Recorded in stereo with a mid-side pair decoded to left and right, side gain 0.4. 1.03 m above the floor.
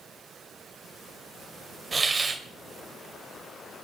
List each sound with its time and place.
1.9 s a hiss: 35° right, 2.5 m